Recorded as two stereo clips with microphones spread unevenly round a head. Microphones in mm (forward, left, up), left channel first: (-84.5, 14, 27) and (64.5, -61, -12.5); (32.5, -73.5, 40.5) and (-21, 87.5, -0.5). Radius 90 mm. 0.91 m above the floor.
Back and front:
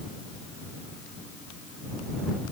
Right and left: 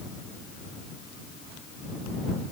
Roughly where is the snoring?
No snoring in this recording.